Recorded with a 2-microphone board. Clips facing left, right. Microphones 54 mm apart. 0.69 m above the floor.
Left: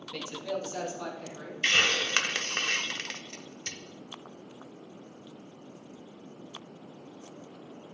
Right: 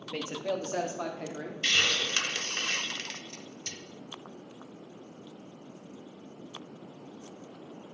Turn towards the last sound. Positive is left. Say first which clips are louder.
# left 3 dB
turn(degrees=30)  # may be behind; listen again after turning